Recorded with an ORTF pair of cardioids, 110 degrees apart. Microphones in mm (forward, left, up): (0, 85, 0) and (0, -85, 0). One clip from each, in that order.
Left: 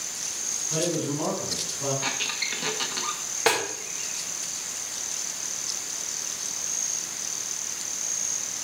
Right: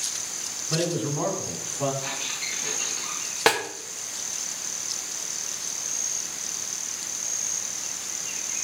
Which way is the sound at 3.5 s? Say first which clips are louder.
Right 2 dB; 35° right.